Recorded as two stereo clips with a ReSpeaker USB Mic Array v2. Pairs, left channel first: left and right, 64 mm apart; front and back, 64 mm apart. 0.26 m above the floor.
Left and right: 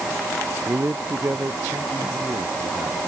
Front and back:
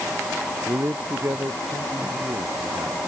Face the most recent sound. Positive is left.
turn(degrees=-140)